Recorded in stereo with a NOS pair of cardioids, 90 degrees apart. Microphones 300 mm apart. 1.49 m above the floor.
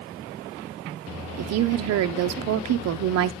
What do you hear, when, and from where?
1.4 s a woman speaking: 55° right, 0.6 m